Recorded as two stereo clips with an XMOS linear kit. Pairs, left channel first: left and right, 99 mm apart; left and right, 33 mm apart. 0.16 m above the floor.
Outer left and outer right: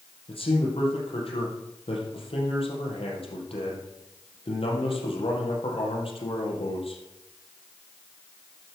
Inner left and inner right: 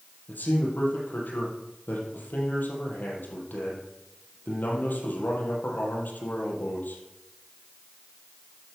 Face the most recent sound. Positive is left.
turn(degrees=70)  # may be behind; listen again after turning